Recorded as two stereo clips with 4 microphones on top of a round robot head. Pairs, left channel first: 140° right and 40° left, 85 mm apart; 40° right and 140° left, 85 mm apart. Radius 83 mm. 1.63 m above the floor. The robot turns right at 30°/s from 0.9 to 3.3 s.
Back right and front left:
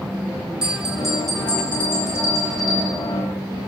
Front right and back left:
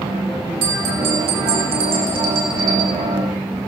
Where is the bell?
120° left, 4 m; by 3.0 s 175° right, 4 m.